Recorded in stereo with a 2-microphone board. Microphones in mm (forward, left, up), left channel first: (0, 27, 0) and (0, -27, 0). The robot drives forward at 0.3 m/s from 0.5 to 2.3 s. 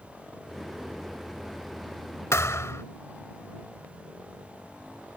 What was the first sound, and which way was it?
A thud, 65° left (ahead or behind).